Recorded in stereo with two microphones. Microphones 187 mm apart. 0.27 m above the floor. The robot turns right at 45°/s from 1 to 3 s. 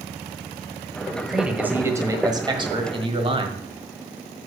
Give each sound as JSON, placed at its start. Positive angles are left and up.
{"t": 1.3, "sound": "a man speaking", "side_deg": 0, "distance_m": 1.3}